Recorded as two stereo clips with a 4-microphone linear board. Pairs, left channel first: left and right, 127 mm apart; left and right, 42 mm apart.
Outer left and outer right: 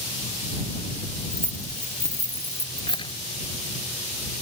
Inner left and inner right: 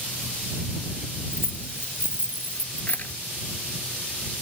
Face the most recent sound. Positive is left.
turn(degrees=35)  # may be behind; listen again after turning